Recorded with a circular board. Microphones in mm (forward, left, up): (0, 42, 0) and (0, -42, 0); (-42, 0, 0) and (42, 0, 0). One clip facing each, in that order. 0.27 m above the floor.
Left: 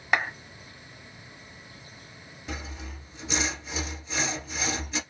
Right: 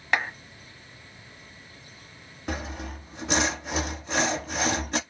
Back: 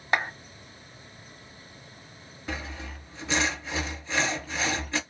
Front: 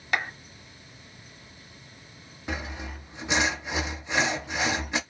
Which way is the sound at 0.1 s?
165° left.